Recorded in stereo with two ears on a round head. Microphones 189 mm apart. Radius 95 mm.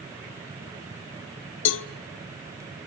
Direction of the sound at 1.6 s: 65° left (ahead or behind).